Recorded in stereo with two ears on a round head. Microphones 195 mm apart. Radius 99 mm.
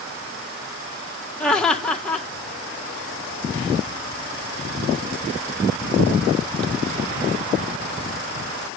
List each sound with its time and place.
1.4 s laughter: 5° left (ahead or behind), 1.5 m